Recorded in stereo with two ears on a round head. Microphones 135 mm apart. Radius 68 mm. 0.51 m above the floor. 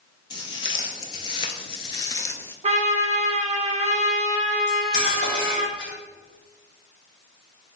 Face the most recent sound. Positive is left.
turn(degrees=80)